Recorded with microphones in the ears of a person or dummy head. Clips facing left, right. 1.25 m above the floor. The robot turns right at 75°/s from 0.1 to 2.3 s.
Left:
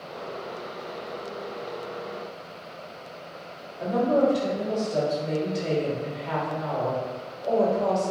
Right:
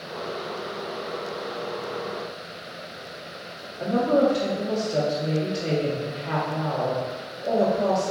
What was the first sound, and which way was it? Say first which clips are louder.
A woman speaking: right 1 dB; 30° right (ahead or behind).